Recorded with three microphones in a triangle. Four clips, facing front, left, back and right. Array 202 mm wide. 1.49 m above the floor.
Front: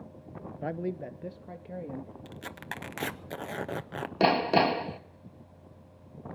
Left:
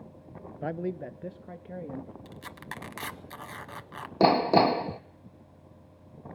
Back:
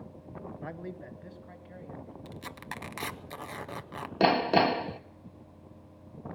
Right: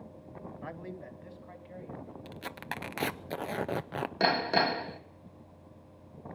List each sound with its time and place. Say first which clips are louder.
0.6 s a man speaking: left 12 dB, front 11 dB; 60° left, 0.9 m; by 2.1 s 50° left, 3.5 m
2.2 s tearing paper: right 2 dB, front 1 dB; 70° right, 0.7 m
4.2 s hammering: left 7 dB, even; 95° left, 0.8 m